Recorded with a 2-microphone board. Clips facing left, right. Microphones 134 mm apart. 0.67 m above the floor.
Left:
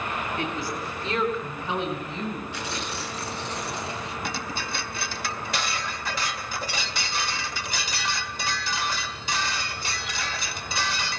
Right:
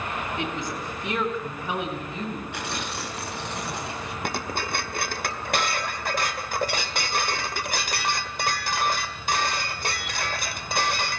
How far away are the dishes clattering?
About 1.7 m.